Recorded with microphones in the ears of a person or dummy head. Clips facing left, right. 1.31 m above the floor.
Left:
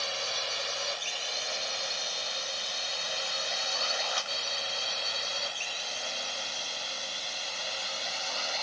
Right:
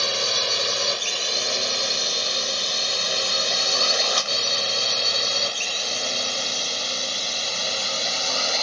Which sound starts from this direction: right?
A drone, at 0.0 s.